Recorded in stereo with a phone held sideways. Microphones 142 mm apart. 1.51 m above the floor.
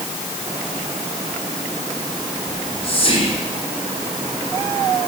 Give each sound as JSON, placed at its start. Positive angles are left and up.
{"t": 2.5, "sound": "whispering", "side_deg": 45, "distance_m": 5.0}